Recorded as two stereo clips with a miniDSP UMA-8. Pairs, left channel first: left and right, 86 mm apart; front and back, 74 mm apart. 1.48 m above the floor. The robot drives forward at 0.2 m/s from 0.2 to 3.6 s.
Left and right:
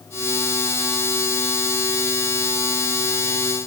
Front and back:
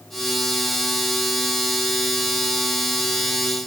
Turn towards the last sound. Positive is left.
No sound to turn to.